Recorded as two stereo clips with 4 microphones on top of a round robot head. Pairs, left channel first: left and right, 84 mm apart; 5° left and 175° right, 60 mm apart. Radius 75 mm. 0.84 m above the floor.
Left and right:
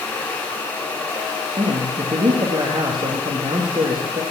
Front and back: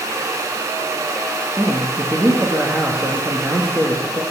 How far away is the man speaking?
About 1.6 m.